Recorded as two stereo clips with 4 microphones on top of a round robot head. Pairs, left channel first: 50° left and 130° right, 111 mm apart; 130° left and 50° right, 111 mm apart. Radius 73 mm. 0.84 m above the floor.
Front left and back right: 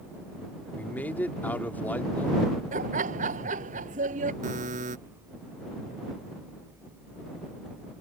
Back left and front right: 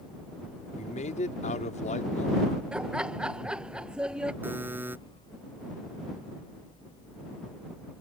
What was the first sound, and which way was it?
A man speaking, 125° left.